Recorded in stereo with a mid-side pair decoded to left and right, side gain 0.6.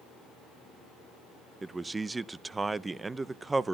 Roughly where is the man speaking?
Ahead.